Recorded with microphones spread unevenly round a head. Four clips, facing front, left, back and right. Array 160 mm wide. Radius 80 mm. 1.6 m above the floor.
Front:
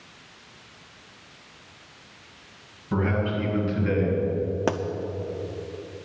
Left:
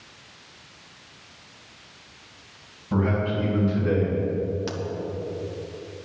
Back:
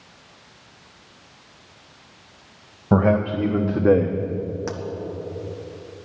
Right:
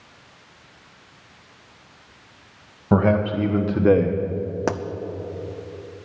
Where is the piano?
No piano in this recording.